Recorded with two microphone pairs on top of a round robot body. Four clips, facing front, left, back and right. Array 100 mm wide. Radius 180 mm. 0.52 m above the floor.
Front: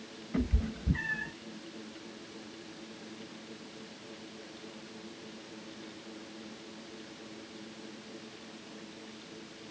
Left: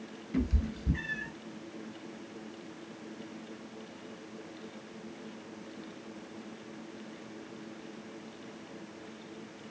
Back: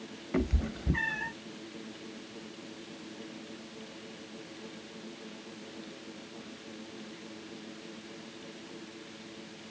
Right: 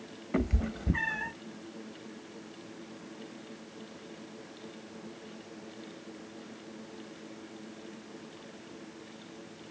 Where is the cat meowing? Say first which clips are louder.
Right 1 dB, back 2 dB; 120° right, 0.9 m.